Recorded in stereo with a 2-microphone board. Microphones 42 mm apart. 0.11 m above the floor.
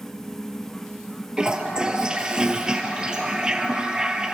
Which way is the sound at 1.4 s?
20° right (ahead or behind).